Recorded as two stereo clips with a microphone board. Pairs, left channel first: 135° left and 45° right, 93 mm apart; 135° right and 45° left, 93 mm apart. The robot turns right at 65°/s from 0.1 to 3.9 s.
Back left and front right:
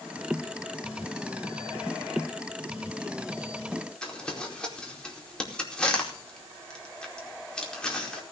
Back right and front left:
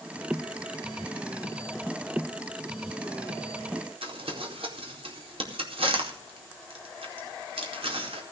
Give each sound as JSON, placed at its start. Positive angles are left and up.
{"t": 4.0, "sound": "crumpling", "azimuth_deg": 55, "distance_m": 4.5}